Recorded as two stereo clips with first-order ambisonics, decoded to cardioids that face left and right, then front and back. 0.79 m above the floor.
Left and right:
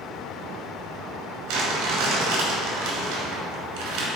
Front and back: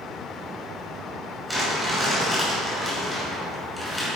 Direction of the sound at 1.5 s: 95° right.